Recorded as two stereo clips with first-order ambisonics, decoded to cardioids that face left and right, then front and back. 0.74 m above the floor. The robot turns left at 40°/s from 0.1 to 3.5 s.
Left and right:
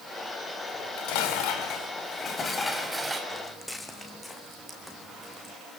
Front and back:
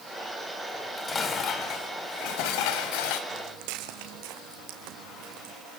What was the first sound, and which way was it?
Dishes clattering, 90° left.